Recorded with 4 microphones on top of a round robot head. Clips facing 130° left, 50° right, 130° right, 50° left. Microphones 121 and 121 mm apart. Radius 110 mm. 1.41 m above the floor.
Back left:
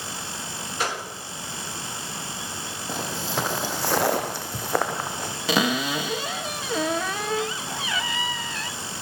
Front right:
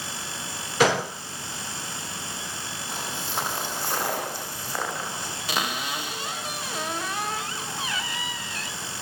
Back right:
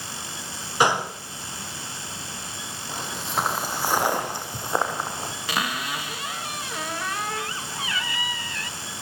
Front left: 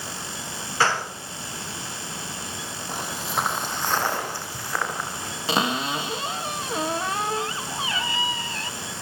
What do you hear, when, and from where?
0.8 s a gunshot: 55° right, 1.4 m
2.9 s footsteps: 135° left, 3 m; by 5.3 s 170° left, 4 m
5.5 s a cupboard door: 120° left, 1.2 m